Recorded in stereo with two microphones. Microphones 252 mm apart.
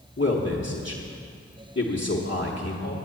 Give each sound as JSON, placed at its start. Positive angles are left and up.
{"t": 0.2, "sound": "a man speaking", "side_deg": 50, "distance_m": 1.1}